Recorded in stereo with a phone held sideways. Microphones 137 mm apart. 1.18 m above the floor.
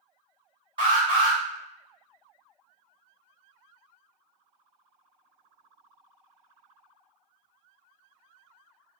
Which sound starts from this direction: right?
An alarm, at 0.8 s.